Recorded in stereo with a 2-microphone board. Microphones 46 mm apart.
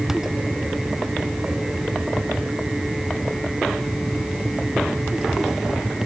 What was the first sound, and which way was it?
Only background noise.